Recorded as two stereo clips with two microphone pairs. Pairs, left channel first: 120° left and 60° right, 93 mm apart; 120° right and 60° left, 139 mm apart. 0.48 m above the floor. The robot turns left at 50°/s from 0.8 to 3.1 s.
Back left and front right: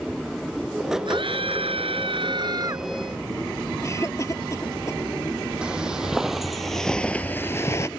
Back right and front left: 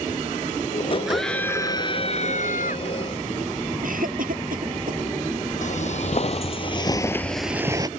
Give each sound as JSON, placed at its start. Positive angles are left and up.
{"t": 1.1, "sound": "a scream", "azimuth_deg": -25}
{"t": 3.8, "sound": "a cough", "azimuth_deg": 65}
{"t": 5.6, "sound": "footsteps", "azimuth_deg": -140}